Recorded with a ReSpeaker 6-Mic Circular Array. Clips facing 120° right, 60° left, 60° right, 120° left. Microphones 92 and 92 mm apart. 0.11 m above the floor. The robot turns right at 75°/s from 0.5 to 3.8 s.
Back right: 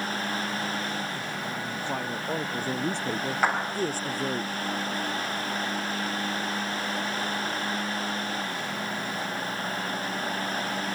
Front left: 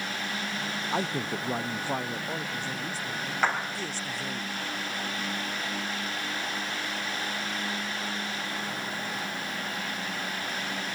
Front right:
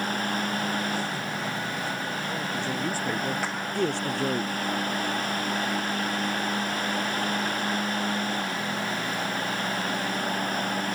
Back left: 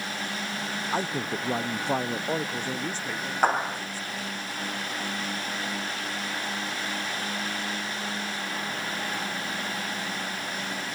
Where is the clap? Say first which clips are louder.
Back right 1 dB, back left 6 dB; 160° left; by 3.8 s 175° right.